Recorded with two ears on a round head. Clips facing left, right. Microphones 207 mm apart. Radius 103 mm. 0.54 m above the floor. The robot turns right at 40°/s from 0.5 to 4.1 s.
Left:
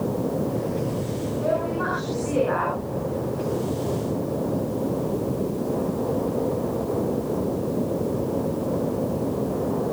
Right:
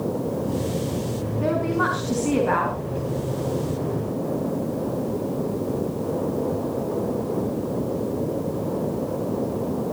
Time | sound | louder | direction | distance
1.4 | a woman speaking | right 3 dB | 110° right | 5 m